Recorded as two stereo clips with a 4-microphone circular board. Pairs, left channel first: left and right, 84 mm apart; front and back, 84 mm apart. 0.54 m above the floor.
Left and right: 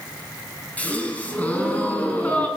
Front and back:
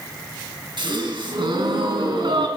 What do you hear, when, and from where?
0.8 s a gasp: 160° left, 4.5 m